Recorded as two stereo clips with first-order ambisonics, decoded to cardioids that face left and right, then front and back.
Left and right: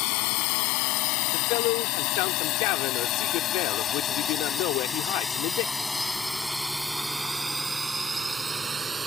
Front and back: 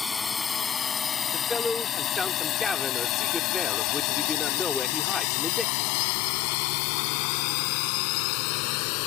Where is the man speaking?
80° left.